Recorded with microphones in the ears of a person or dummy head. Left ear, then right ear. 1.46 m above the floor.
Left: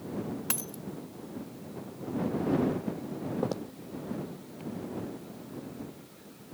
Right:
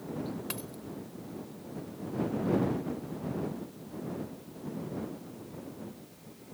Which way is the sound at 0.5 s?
25° left (ahead or behind).